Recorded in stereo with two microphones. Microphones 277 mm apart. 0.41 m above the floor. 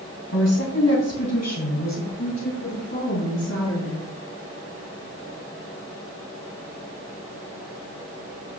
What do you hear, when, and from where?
0.3 s a woman speaking: 60° left (ahead or behind), 2.5 m; by 4.0 s 80° left, 6 m